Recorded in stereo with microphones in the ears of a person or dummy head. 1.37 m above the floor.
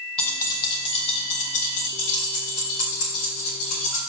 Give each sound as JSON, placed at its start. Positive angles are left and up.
{"t": 0.2, "sound": "keys jangling", "side_deg": 10, "distance_m": 0.8}